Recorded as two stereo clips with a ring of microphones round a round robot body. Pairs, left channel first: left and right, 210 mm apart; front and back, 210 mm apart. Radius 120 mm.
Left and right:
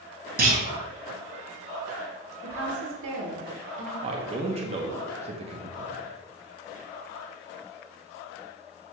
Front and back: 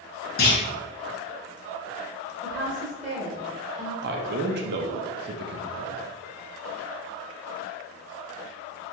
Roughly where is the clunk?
Ahead right.